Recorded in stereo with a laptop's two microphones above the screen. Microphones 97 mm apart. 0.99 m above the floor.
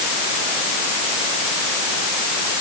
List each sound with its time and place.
Only background noise.